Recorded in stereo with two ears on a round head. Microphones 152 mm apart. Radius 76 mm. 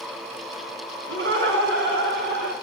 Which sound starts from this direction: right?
Laughter, at 1.1 s.